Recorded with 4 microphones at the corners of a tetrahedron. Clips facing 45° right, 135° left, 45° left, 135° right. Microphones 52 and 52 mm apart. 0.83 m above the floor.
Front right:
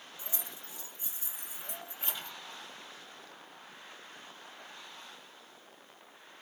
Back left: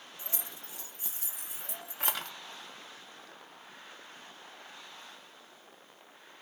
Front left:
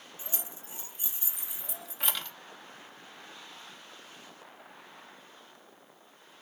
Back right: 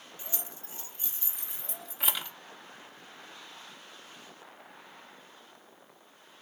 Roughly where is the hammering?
I don't hear hammering.